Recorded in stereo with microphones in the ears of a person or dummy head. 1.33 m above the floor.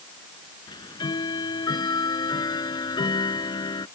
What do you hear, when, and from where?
0.7 s ticking: 25° left (ahead or behind)